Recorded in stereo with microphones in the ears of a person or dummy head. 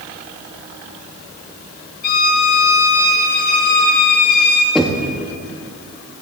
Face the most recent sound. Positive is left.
turn(degrees=0)  # may be behind; listen again after turning